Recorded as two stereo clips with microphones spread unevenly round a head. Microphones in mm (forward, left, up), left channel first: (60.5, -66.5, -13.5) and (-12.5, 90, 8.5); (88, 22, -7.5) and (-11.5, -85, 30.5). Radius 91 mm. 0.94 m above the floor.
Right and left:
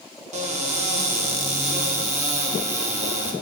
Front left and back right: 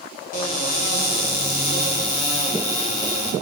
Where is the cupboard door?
65° left, 1.3 m.